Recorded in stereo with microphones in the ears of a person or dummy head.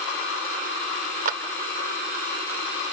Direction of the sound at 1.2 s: 45° right (ahead or behind).